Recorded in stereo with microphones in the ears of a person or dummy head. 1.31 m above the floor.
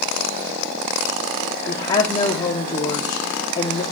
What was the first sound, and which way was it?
A woman speaking, 25° left (ahead or behind).